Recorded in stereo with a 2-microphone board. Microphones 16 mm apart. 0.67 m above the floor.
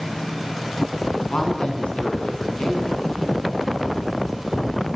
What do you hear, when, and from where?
1.3 s a woman speaking: 85° left, 7.5 m; by 3.5 s 80° left, 8 m